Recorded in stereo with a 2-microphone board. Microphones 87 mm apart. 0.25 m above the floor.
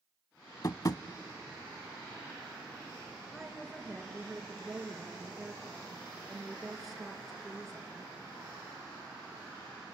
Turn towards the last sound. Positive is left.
turn(degrees=0)  # may be behind; listen again after turning